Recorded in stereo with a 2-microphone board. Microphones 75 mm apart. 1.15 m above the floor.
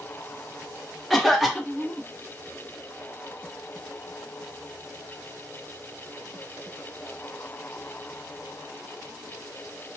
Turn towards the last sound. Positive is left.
turn(degrees=0)  # may be behind; listen again after turning